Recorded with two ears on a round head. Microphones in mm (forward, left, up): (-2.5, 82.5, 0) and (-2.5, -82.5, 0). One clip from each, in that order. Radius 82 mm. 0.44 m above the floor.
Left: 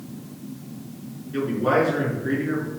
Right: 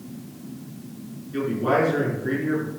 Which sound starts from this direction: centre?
A man speaking, at 1.3 s.